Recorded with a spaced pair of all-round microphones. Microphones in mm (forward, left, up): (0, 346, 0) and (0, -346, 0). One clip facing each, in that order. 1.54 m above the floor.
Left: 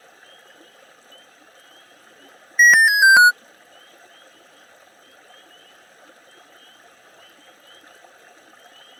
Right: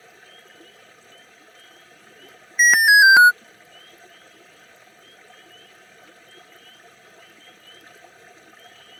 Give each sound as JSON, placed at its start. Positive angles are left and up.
{"t": 0.0, "sound": "running water", "side_deg": -50}
{"t": 2.6, "sound": "an alarm", "side_deg": 10}